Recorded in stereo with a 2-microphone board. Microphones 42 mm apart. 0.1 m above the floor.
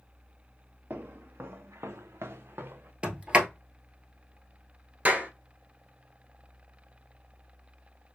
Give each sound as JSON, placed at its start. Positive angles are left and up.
{"t": 0.9, "sound": "footsteps", "side_deg": -55, "distance_m": 1.2}
{"t": 3.0, "sound": "a sliding door", "side_deg": -30, "distance_m": 1.0}
{"t": 5.0, "sound": "a clap", "side_deg": -40, "distance_m": 1.1}